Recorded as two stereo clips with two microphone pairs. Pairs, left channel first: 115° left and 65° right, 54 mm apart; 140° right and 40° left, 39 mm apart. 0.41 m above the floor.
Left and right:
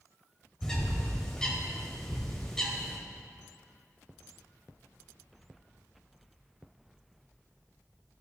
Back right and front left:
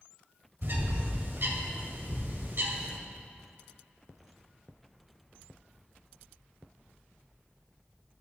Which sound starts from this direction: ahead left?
A bird, at 0.6 s.